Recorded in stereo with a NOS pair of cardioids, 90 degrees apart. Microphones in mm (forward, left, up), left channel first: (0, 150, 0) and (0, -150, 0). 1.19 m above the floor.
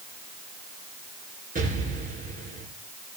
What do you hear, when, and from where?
1.6 s an explosion: 25° right, 8 m